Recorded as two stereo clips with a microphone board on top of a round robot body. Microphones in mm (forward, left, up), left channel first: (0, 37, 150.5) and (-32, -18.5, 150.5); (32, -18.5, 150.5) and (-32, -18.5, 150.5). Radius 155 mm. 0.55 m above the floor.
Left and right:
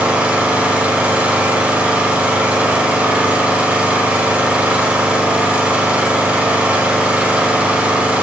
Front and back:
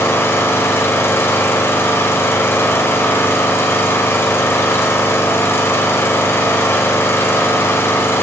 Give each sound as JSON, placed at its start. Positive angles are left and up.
{"t": 0.0, "sound": "an engine running", "azimuth_deg": -50, "distance_m": 1.1}